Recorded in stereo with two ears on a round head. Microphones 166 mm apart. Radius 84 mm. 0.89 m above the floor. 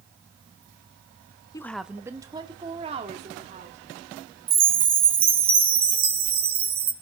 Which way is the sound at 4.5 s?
30° right (ahead or behind).